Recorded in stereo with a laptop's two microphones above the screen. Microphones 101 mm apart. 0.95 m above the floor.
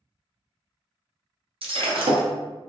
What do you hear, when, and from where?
1.6 s breaking glass: 65° right (ahead or behind), 0.6 m